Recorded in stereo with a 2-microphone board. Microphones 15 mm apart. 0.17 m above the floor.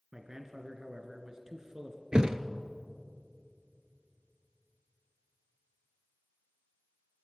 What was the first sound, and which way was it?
A man speaking, 40° right (ahead or behind).